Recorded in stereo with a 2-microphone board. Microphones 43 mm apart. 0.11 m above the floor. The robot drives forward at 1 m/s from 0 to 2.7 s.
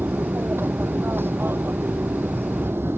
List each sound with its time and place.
0.0 s an aircraft: 60° right (ahead or behind); by 3.0 s 65° right (ahead or behind)